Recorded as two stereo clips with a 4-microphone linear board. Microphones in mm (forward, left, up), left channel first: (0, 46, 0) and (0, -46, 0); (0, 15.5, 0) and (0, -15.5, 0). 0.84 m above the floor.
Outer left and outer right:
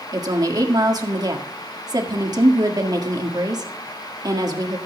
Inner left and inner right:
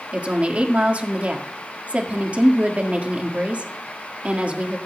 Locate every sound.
0.1 s a woman speaking: 45° right (ahead or behind), 1.6 m